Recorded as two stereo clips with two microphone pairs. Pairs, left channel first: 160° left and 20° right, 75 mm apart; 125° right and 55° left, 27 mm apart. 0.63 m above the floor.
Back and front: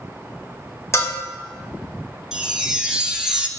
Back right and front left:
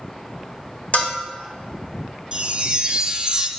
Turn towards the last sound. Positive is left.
turn(degrees=60)